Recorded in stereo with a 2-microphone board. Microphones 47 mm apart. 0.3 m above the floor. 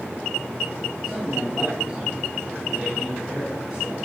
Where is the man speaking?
10° right (ahead or behind), 5 m; by 4.0 s 25° right (ahead or behind), 2.5 m.